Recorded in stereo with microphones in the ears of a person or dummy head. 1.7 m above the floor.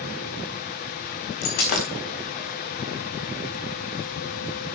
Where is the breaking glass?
50° left (ahead or behind), 3.5 m.